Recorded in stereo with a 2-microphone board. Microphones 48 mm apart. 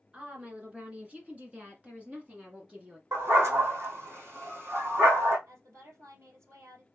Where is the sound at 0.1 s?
25° right (ahead or behind), 2.0 m.